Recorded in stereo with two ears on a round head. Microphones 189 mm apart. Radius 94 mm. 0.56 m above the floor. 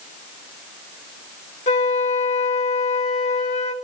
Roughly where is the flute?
Left.